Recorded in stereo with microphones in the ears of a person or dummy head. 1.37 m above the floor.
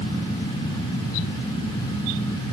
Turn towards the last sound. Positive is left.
No sound to turn to.